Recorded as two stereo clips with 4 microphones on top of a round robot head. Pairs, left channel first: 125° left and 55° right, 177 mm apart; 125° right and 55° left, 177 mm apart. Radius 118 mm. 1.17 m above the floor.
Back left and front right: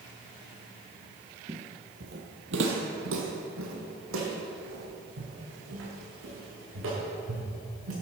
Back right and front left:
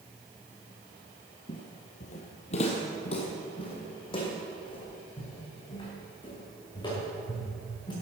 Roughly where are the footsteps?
Right.